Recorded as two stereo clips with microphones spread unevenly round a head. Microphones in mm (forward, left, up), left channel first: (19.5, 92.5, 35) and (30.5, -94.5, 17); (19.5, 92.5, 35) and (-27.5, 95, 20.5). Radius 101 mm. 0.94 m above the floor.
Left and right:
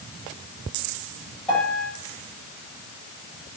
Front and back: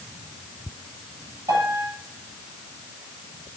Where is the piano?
Straight behind, 8.5 m.